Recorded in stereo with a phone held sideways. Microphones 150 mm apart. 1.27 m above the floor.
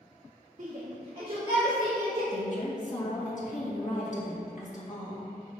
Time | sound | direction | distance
0.6 | a shout | 55° right (ahead or behind) | 1.2 m
2.3 | a woman speaking | 55° left (ahead or behind) | 2.0 m